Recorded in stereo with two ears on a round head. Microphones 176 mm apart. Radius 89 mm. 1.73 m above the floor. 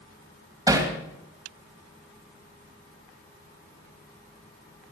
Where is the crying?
I don't hear crying.